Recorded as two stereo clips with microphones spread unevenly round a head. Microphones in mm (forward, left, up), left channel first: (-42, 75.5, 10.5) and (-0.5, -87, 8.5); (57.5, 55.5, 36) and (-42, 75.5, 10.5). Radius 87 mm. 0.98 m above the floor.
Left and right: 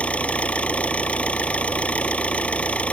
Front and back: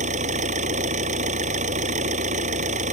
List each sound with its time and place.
0.0 s an engine running: 175° right